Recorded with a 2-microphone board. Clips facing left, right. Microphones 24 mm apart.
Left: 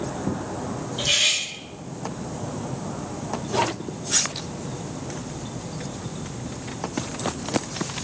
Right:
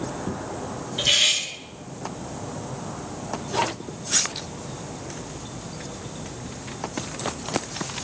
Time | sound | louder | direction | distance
1.0 | cutlery clinking | right 2 dB | 20° right (ahead or behind) | 0.7 m